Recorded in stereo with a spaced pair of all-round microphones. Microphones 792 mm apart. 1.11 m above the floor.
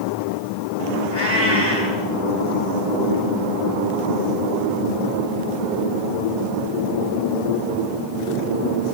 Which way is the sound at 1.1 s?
55° left (ahead or behind).